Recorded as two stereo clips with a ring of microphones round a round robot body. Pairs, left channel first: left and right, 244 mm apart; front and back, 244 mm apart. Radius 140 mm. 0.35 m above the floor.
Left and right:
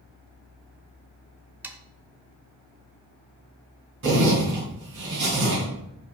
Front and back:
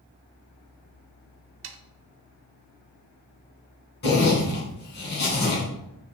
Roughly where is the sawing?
Behind.